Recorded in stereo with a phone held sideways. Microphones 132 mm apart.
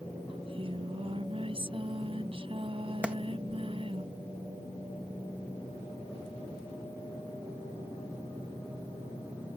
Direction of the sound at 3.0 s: 10° right (ahead or behind).